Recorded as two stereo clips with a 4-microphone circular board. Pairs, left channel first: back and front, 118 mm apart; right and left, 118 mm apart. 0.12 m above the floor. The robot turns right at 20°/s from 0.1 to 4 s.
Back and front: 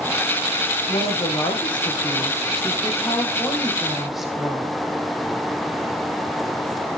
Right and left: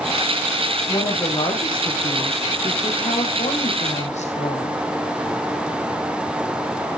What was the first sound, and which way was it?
A woman speaking, 150° right.